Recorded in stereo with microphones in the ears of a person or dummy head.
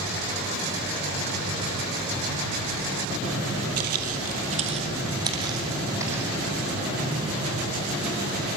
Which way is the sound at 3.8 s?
55° right (ahead or behind).